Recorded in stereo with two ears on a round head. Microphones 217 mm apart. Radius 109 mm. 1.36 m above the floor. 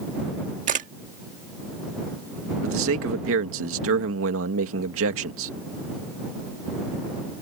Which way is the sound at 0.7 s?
35° right (ahead or behind).